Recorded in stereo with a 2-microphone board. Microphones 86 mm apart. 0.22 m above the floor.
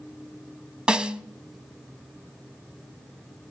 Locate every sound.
0.9 s a snare drum: 10° right (ahead or behind), 0.6 m